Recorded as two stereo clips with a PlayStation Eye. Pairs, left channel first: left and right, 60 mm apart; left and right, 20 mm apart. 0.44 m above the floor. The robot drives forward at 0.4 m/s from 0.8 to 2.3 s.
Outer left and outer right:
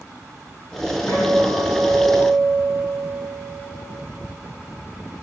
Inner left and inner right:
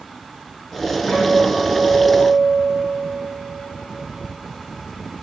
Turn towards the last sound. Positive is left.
turn(degrees=60)  # may be behind; listen again after turning